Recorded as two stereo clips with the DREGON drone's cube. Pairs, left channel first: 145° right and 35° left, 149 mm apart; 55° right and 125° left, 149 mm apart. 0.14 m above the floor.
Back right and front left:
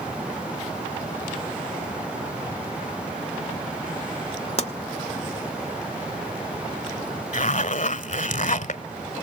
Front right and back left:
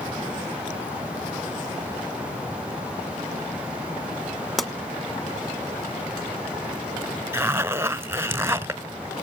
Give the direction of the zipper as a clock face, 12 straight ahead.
5 o'clock.